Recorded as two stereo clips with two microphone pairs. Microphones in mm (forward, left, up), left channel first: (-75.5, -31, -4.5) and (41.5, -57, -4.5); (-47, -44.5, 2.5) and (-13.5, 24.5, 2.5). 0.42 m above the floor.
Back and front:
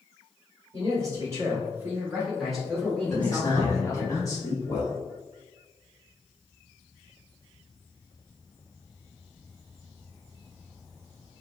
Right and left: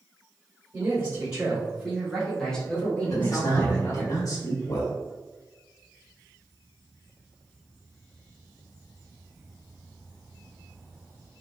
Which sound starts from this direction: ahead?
A man speaking, at 0.7 s.